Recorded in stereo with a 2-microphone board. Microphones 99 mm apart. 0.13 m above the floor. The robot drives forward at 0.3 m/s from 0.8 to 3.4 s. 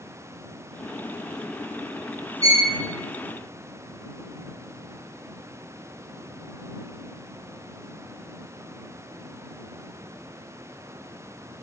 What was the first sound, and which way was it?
A violin, 10° left (ahead or behind).